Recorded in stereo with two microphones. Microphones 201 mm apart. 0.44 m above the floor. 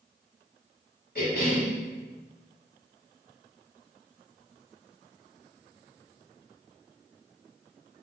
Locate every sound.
1.1 s a cough: 55° left (ahead or behind), 1.2 m